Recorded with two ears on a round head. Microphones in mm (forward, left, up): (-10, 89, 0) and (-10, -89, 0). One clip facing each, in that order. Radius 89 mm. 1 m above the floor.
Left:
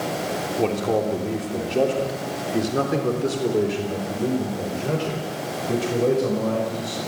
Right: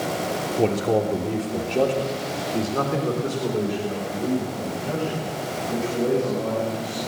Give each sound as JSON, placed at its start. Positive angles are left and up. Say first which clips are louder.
{"t": 0.6, "sound": "a man speaking", "louder": "right 1 dB", "side_deg": -10, "distance_m": 3.0}